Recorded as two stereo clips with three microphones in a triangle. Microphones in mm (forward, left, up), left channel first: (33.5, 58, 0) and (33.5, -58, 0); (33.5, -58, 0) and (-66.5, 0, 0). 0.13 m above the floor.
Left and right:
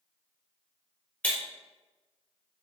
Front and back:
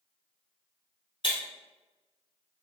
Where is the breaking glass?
15° left, 1.5 m.